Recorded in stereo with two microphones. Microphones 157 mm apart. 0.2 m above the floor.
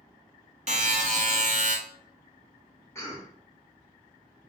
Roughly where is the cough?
Centre.